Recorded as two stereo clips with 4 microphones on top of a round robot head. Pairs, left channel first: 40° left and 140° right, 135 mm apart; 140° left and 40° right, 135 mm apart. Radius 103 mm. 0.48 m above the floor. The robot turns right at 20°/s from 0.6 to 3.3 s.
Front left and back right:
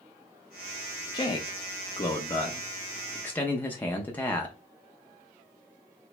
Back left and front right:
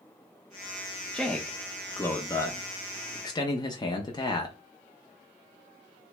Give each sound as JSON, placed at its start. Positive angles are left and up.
{"t": 1.1, "sound": "a man speaking", "azimuth_deg": 65, "distance_m": 0.8}